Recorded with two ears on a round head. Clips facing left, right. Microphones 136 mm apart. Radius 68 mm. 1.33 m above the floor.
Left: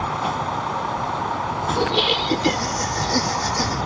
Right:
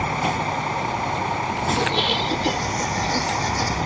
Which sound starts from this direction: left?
Laughter, at 1.8 s.